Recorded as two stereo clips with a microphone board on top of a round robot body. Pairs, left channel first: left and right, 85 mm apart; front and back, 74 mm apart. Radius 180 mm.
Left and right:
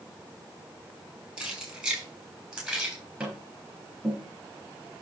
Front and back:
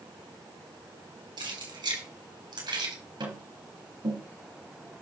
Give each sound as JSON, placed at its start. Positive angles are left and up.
{"t": 1.4, "sound": "keys jangling", "azimuth_deg": -170, "distance_m": 4.5}
{"t": 3.2, "sound": "tapping", "azimuth_deg": -170, "distance_m": 3.5}